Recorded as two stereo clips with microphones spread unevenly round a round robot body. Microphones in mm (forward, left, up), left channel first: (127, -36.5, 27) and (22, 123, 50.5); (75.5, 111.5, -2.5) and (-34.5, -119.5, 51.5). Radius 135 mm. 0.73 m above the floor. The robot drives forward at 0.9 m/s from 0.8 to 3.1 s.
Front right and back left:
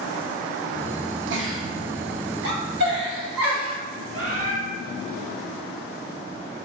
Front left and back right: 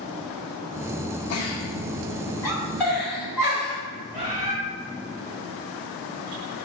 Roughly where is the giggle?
Left.